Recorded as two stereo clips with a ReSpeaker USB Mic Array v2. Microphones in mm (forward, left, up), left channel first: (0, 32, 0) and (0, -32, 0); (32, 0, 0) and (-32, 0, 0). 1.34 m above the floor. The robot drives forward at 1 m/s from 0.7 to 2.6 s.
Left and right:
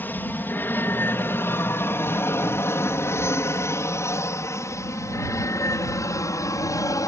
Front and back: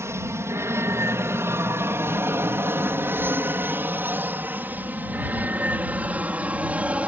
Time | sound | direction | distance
0.0 | an aircraft | 145° left | ?